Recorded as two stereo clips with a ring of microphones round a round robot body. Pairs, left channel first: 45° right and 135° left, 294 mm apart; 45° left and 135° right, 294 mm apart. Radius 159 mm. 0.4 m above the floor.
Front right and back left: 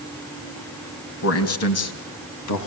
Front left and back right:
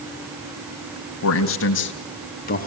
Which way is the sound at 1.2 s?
Straight ahead.